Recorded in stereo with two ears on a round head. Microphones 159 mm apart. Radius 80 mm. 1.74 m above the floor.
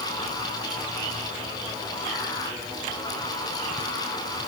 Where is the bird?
I don't hear a bird.